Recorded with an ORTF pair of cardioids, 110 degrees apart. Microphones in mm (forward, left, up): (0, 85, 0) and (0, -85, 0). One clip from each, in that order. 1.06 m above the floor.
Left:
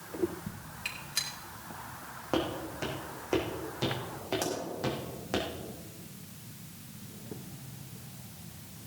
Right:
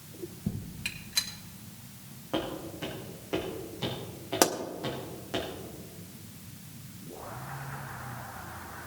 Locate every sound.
0.8 s a gunshot: 10° right, 2 m
2.3 s footsteps: 35° left, 4 m
4.4 s a pop: 65° right, 1.6 m